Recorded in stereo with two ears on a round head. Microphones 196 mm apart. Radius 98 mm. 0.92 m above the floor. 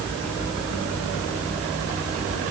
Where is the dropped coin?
No dropped coin in this recording.